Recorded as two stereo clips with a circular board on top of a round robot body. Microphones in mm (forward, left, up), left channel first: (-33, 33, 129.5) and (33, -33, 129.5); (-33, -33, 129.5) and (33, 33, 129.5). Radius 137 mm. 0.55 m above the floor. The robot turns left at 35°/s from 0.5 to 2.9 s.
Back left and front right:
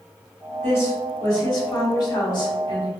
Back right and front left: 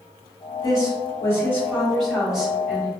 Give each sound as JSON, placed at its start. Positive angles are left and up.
{"t": 0.6, "sound": "a woman speaking", "azimuth_deg": -165, "distance_m": 1.7}